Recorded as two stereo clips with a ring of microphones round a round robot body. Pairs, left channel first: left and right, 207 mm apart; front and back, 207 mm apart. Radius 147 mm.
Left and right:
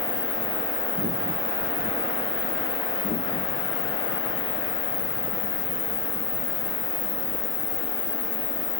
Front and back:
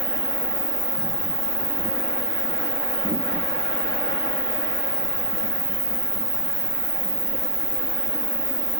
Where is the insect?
115° left, 1.5 m.